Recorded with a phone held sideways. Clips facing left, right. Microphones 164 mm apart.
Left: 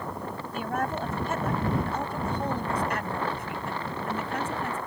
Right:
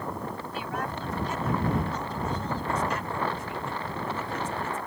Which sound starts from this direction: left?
A woman speaking, at 0.5 s.